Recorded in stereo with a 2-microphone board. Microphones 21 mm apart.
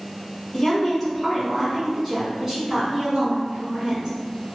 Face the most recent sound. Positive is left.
turn(degrees=-35)  # may be behind; listen again after turning